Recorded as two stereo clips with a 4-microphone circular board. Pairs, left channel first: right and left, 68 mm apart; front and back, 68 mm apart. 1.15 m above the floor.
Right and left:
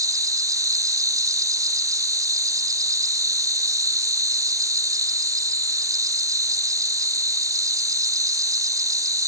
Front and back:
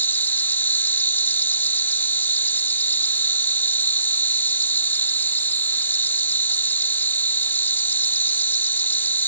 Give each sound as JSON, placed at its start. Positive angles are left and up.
{"t": 0.0, "sound": "an insect", "azimuth_deg": 60}